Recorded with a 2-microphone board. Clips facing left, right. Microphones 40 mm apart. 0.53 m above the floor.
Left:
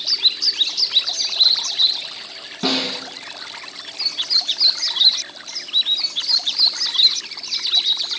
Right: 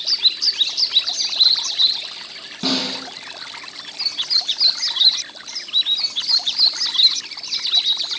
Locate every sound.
2.6 s a snare drum: 10° left (ahead or behind), 2 m